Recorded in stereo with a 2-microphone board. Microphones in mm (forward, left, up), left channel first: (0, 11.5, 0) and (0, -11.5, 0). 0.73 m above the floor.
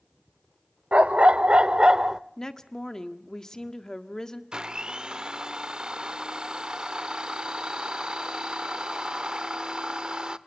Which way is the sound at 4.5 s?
35° right (ahead or behind).